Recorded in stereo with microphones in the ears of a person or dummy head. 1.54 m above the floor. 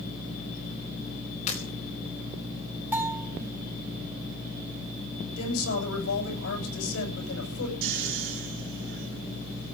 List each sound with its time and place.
1.5 s breaking glass: 40° left (ahead or behind), 4.5 m
2.9 s a bell: 15° right (ahead or behind), 3 m
5.4 s a woman speaking: 80° left, 8 m
7.8 s snoring: 70° right (ahead or behind), 3.5 m